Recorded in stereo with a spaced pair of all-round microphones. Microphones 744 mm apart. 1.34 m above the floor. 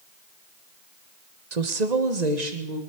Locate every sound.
1.5 s a woman speaking: 60° right (ahead or behind), 1.1 m; by 2.8 s 65° right (ahead or behind), 2.5 m